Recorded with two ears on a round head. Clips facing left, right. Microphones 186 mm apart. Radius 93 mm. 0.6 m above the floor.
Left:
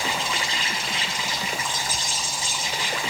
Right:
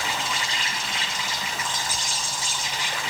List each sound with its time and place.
0.0 s an insect: 65° left (ahead or behind), 2.5 m